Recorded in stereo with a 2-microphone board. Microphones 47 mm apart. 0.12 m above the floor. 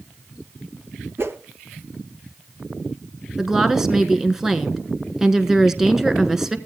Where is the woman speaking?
10° right (ahead or behind), 1.2 m.